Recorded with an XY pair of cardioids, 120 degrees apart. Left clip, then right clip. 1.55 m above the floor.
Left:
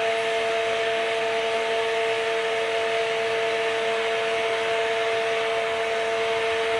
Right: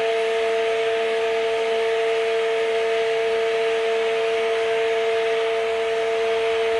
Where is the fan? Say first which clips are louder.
Right 2 dB; 65° left, 0.9 m.